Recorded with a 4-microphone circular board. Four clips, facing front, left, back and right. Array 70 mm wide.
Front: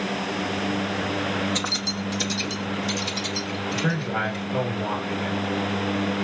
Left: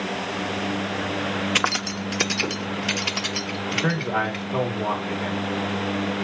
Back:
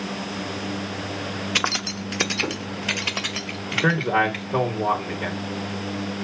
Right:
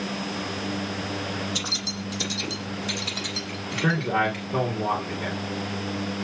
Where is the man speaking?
175° right, 2.5 m.